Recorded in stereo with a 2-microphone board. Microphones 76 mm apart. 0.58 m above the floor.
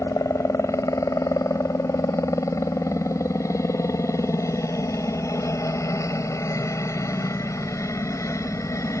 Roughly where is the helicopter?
Left.